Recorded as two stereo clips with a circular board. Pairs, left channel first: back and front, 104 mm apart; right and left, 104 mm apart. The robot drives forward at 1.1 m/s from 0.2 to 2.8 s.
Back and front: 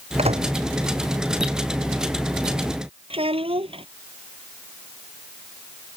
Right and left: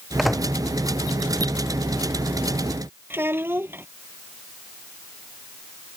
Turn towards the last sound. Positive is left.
turn(degrees=20)